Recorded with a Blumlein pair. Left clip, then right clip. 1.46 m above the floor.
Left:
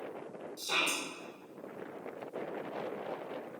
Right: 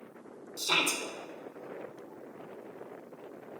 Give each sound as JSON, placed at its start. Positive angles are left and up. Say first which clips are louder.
{"t": 0.6, "sound": "a shout", "louder": "right 4 dB", "azimuth_deg": -65, "distance_m": 1.6}